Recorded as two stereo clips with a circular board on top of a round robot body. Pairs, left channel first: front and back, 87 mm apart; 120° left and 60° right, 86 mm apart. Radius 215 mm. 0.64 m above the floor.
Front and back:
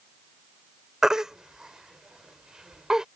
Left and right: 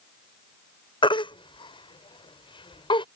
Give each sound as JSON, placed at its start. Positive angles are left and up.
{"t": 1.0, "sound": "a baby crying", "azimuth_deg": 95}